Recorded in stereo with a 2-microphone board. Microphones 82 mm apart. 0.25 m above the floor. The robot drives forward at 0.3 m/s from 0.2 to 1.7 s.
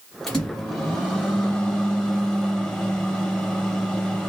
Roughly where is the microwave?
Centre.